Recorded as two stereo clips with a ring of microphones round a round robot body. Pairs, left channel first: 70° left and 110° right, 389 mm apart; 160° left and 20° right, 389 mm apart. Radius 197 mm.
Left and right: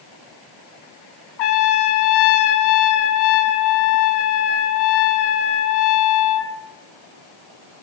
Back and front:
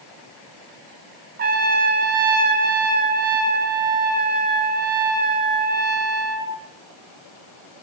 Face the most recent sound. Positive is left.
turn(degrees=45)